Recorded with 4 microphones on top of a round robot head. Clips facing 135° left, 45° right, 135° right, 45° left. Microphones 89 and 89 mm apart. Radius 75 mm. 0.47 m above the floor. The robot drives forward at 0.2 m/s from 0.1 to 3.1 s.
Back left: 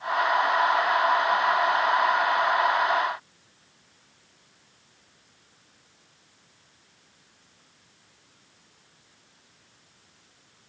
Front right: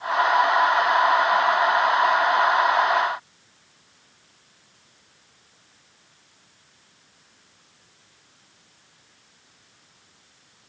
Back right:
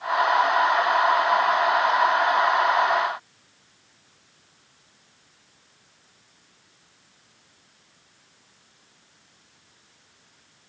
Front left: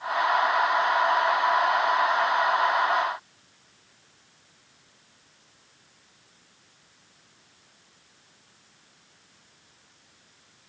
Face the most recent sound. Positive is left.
No sound to turn to.